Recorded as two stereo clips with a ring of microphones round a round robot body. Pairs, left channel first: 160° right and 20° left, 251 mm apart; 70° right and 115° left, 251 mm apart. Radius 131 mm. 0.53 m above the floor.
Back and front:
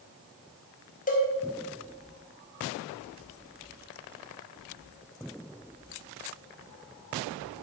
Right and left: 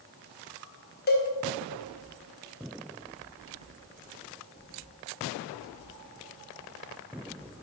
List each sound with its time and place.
1.1 s a cowbell: 105° right, 1.6 m